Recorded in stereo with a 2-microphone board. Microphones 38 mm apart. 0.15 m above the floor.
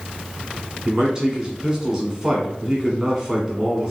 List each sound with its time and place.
0.8 s a man speaking: 20° right (ahead or behind), 1.3 m